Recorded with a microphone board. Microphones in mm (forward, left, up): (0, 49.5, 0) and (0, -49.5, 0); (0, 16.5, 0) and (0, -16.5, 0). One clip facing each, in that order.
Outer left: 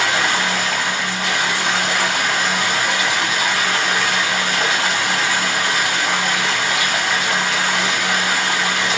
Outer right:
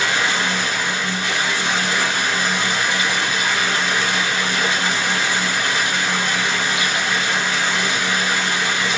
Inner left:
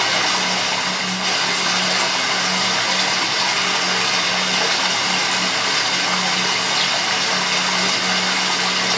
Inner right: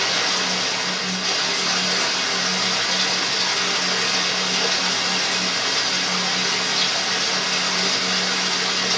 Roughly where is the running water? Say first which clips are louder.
Outer left 2 dB, inner left 3 dB; left.